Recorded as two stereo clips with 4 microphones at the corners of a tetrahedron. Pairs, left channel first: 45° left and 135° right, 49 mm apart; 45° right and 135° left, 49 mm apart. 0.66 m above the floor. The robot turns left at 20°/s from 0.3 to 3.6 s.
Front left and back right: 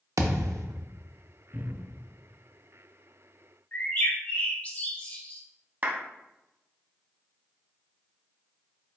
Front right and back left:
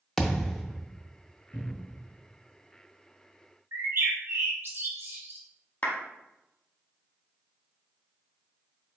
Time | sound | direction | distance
0.2 | a thud | 130° right | 0.5 m
1.5 | a cupboard door | 80° right | 1.7 m
3.7 | a bird | 95° left | 1.4 m
5.8 | a clap | 90° right | 0.9 m